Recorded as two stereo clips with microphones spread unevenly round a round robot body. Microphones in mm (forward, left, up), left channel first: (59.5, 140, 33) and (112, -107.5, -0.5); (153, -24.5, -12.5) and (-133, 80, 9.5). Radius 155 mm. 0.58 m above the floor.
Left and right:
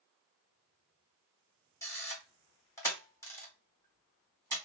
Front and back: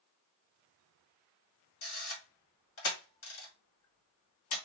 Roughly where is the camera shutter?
Ahead.